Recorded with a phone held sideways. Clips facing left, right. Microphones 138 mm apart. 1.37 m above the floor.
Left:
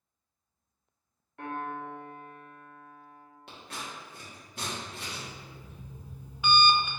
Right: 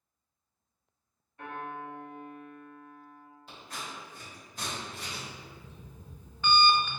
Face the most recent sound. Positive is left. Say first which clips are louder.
# even
turn(degrees=10)  # may be behind; listen again after turning